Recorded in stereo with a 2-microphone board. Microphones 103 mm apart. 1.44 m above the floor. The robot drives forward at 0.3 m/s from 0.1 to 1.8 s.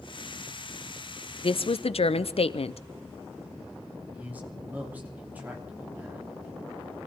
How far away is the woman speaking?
About 0.5 m.